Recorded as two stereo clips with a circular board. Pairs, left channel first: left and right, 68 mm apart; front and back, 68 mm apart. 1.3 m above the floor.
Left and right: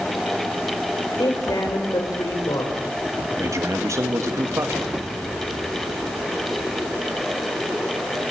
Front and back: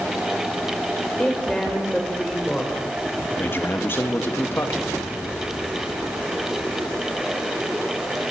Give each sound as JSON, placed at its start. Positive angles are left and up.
{"t": 1.2, "sound": "a woman speaking", "azimuth_deg": 80, "distance_m": 5.0}
{"t": 3.4, "sound": "a man speaking", "azimuth_deg": -55, "distance_m": 2.5}